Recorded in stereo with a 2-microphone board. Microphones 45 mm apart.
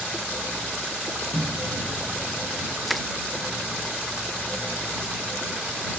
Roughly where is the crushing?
Centre.